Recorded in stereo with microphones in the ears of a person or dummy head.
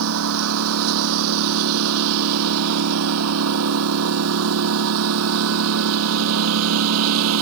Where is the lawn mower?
75° right (ahead or behind); by 7.4 s 85° right.